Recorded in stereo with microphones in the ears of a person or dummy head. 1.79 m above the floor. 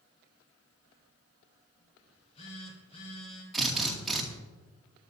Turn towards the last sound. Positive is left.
turn(degrees=0)  # may be behind; listen again after turning